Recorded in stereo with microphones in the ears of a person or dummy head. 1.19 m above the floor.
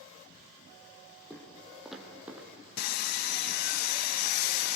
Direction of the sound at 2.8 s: 65° left (ahead or behind).